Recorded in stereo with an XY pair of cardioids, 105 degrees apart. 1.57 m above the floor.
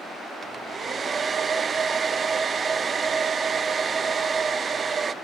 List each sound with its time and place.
0.4 s a hair dryer: 35° right, 0.6 m